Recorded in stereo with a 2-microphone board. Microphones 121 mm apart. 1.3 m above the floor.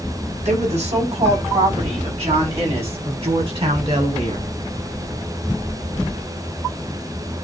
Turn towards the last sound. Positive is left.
turn(degrees=-45)  # may be behind; listen again after turning